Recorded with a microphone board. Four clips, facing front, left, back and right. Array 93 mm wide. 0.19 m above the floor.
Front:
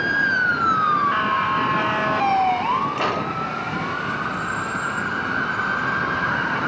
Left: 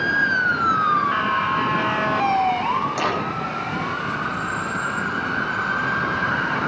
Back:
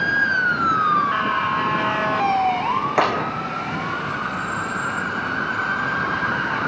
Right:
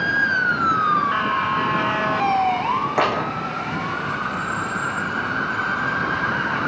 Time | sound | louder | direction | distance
3.0 | a clap | right 3 dB, back 3 dB | 150° right | 8.5 m